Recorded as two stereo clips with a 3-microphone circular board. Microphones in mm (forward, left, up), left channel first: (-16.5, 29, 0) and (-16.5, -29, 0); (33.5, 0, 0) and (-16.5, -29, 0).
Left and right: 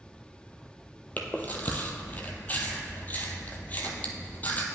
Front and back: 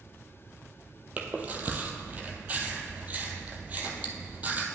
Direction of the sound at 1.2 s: 150° left.